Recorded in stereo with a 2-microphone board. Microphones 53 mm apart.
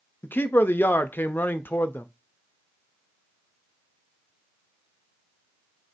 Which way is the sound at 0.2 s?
40° left (ahead or behind).